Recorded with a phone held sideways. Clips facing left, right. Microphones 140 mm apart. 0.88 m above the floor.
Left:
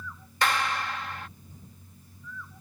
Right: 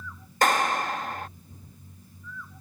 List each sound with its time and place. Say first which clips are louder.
0.4 s a clap: right 4 dB; 45° right (ahead or behind)